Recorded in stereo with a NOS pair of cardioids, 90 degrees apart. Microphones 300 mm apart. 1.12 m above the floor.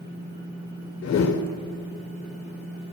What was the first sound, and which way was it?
A whoosh, 65° left.